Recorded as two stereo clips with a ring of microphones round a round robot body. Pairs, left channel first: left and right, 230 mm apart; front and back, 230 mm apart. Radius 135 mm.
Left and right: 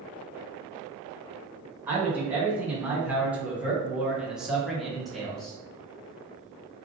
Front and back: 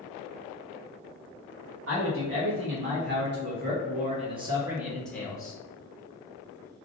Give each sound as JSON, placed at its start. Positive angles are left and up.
{"t": 1.9, "sound": "a man speaking", "azimuth_deg": -170, "distance_m": 1.8}